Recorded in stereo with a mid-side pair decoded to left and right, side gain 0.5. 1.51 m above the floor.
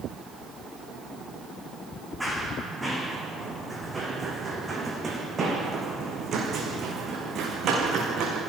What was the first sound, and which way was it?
Running footsteps, straight ahead.